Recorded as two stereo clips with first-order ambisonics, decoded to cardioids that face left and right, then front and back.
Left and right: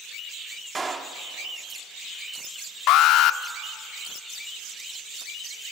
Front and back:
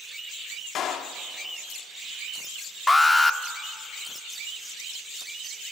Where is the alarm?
80° left, 0.6 m.